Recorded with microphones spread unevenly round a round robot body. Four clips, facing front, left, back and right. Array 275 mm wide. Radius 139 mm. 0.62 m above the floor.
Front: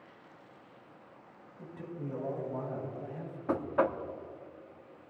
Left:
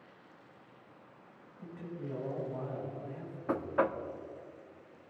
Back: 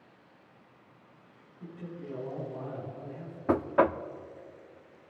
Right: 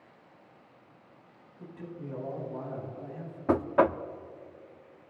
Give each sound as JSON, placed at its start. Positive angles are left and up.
{"t": 1.6, "sound": "a man speaking", "azimuth_deg": 5, "distance_m": 5.5}
{"t": 3.5, "sound": "knocking", "azimuth_deg": -125, "distance_m": 0.6}